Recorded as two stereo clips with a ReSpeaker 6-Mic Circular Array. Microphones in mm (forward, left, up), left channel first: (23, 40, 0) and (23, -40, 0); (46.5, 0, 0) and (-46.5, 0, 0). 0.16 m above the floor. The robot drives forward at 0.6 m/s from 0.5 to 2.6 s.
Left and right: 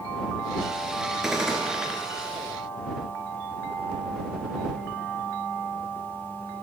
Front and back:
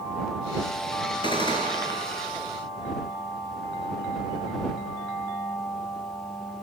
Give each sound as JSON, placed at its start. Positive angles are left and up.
{"t": 1.2, "sound": "a gunshot", "azimuth_deg": -5, "distance_m": 1.3}